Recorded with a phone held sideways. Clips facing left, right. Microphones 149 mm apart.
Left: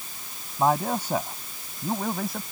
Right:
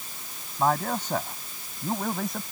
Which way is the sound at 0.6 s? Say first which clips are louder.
Left 2 dB; 15° left (ahead or behind).